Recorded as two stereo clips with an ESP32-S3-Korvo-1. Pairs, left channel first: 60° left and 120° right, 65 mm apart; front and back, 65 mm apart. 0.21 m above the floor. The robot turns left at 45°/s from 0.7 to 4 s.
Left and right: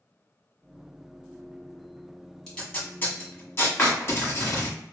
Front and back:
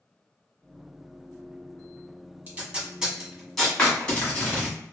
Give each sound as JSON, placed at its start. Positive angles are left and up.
{"t": 2.5, "sound": "tape being pulled", "azimuth_deg": 135, "distance_m": 1.2}
{"t": 3.8, "sound": "a clap", "azimuth_deg": 65, "distance_m": 1.2}